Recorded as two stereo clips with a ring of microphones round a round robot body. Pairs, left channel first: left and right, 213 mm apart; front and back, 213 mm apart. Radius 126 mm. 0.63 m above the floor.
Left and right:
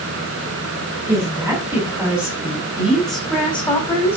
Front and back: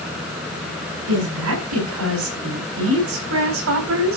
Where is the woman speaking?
170° right, 5.5 m; by 4.2 s 170° left, 3.5 m.